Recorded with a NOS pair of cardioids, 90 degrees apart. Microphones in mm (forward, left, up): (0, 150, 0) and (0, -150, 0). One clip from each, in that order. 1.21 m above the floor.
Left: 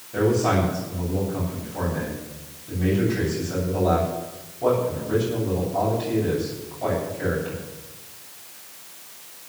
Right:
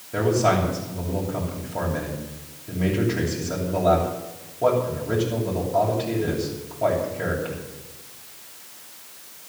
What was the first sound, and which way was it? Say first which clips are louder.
A man speaking: right 1 dB; 45° right.